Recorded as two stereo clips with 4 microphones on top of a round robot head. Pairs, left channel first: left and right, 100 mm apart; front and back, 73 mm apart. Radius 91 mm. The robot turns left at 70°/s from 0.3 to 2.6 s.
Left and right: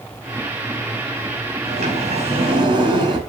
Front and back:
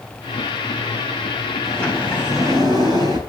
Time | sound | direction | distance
1.6 | a sliding door | 65° right | 6 m